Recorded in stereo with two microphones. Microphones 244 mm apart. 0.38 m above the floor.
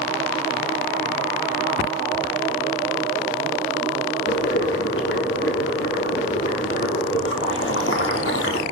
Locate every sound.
4.3 s boiling: 60° left (ahead or behind), 4 m